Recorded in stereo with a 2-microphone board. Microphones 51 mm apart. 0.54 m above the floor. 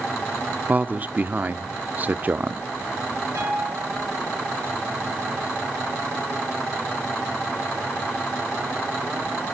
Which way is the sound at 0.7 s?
35° right (ahead or behind).